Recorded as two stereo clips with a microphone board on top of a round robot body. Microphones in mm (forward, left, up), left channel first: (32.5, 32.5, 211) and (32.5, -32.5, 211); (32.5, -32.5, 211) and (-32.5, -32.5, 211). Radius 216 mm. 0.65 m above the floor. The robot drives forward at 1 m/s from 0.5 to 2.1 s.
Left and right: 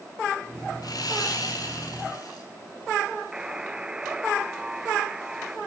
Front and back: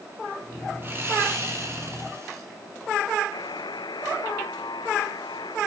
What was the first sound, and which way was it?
Sawing, 120° left.